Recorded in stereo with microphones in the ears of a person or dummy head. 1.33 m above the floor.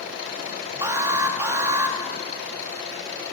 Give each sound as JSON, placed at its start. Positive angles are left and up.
{"t": 0.8, "sound": "an alarm", "side_deg": -15, "distance_m": 1.8}